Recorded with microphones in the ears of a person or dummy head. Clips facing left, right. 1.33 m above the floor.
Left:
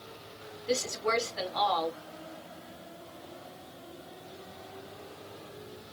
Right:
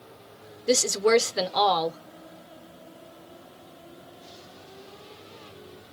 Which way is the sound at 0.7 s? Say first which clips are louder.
Right 10 dB; 60° right (ahead or behind).